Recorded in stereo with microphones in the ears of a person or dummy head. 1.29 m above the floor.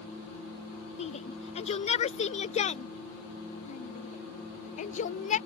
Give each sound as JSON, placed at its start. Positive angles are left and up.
{"t": 1.0, "sound": "a shout", "side_deg": 35}